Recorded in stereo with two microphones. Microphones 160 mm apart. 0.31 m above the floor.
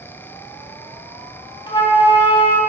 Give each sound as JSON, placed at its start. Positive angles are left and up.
{"t": 1.7, "sound": "a flute", "side_deg": 30, "distance_m": 0.9}